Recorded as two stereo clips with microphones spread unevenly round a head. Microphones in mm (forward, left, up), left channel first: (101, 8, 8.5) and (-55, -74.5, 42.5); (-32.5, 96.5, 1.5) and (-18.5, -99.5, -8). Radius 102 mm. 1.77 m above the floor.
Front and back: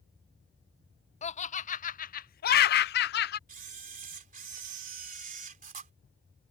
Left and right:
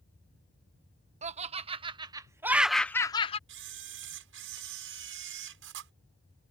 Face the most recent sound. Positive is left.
turn(degrees=-110)